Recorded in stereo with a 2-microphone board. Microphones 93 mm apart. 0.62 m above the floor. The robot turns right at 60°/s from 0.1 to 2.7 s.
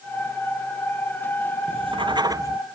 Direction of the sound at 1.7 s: 80° right.